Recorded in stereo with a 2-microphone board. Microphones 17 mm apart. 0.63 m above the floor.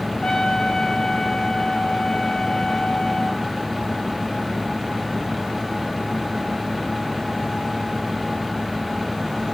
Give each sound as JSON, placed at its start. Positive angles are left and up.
{"t": 0.2, "sound": "a trumpet", "side_deg": 70, "distance_m": 4.0}